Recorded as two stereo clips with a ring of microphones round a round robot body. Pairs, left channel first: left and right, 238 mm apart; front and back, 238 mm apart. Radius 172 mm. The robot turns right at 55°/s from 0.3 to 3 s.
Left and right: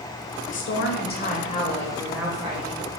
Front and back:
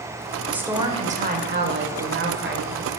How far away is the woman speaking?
About 1.1 m.